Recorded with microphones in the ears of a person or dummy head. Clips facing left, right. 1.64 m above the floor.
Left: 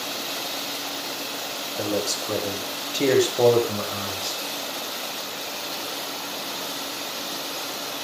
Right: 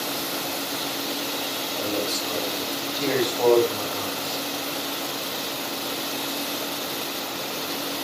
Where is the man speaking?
40° left (ahead or behind), 8 m; by 4.4 s 55° left (ahead or behind), 8.5 m.